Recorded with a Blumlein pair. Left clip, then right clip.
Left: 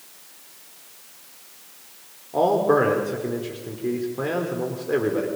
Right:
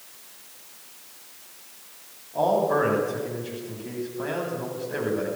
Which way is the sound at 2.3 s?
55° left.